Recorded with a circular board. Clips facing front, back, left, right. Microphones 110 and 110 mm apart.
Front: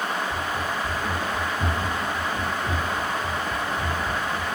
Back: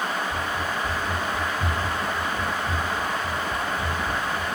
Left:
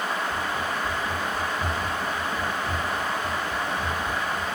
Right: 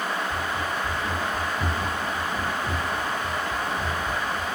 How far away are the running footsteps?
About 2 m.